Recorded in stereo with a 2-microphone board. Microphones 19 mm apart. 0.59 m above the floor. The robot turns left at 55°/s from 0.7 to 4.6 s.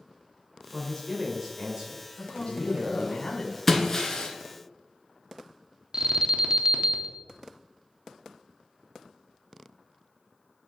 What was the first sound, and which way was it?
A man speaking, 25° left.